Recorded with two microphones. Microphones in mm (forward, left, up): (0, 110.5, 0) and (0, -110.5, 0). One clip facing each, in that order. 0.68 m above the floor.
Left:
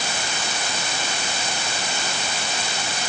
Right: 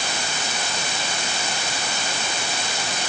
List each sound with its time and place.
Only background noise.